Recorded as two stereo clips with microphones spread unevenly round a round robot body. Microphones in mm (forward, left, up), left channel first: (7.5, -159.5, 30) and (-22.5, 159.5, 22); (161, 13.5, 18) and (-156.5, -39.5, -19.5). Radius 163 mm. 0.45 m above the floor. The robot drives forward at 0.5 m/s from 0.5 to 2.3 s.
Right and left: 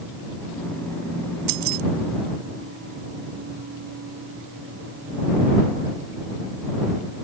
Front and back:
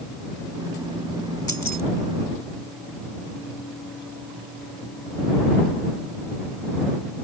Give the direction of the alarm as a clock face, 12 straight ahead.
No alarm in this recording.